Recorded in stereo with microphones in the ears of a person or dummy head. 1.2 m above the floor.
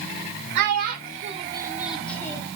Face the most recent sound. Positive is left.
turn(degrees=20)  # may be behind; listen again after turning